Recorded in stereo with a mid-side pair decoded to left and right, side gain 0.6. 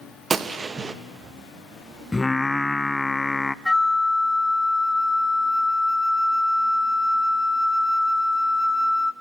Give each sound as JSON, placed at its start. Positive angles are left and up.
{"t": 0.3, "sound": "a gunshot", "azimuth_deg": -25, "distance_m": 1.0}
{"t": 2.1, "sound": "singing", "azimuth_deg": 15, "distance_m": 0.5}
{"t": 3.6, "sound": "a flute", "azimuth_deg": 5, "distance_m": 0.8}